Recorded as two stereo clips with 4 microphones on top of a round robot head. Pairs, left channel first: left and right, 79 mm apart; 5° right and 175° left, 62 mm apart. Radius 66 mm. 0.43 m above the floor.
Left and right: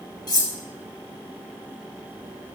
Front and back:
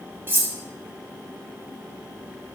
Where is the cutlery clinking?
120° left, 1.3 m.